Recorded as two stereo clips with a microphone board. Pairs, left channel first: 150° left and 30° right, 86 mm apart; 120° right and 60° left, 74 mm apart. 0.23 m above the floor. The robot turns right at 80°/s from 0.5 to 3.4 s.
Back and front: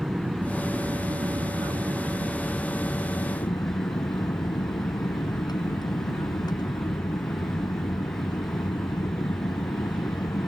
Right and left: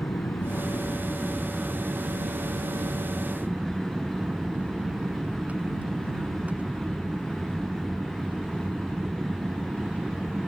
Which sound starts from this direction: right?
An aircraft, at 0.0 s.